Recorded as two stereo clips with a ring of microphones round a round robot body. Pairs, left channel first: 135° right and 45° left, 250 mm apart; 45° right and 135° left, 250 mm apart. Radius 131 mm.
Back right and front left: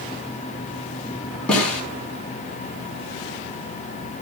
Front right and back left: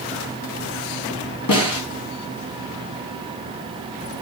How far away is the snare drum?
About 4.5 m.